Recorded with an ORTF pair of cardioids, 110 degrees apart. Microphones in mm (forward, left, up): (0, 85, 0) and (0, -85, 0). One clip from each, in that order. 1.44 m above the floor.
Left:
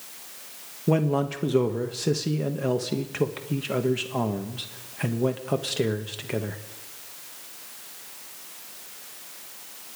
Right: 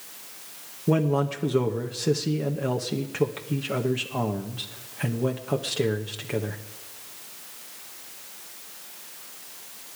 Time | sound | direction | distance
0.9 | a man speaking | 5° left | 1.2 m